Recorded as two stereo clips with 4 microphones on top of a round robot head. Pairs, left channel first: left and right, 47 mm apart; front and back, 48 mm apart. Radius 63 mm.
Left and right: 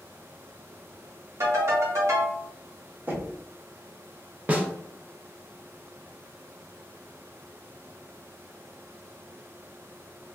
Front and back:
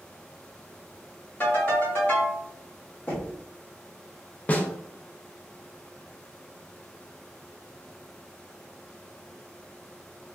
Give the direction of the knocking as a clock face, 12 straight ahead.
2 o'clock.